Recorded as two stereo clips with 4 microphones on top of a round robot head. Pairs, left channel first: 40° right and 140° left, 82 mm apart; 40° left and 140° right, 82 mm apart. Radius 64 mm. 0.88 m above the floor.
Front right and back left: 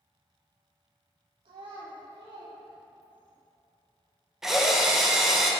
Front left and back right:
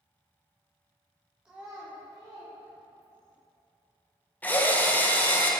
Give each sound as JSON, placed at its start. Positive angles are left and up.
{"t": 1.4, "sound": "a child speaking", "azimuth_deg": 145, "distance_m": 0.7}
{"t": 4.4, "sound": "a drill", "azimuth_deg": 60, "distance_m": 0.8}